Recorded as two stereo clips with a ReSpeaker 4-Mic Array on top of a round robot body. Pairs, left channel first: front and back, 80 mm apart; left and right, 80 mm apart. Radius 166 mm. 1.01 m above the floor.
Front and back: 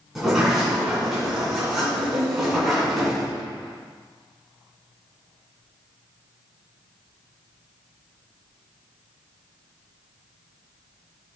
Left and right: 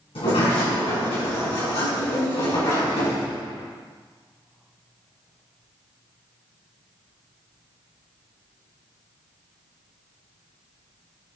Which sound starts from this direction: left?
A sliding door, at 0.1 s.